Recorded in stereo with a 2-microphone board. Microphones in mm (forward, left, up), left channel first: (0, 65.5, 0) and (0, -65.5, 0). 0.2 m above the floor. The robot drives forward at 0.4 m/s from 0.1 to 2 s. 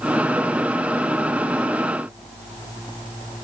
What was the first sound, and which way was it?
Only background noise.